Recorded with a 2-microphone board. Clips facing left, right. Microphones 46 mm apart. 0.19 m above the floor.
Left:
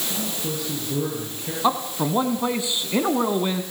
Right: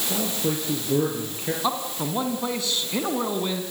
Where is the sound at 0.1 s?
40° right (ahead or behind), 4.5 m; by 1.5 s 30° right (ahead or behind), 4.5 m.